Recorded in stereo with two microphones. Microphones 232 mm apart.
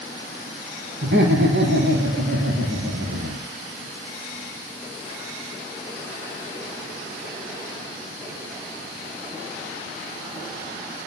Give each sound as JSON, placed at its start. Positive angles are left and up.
{"t": 1.0, "sound": "laughter", "side_deg": -50, "distance_m": 3.5}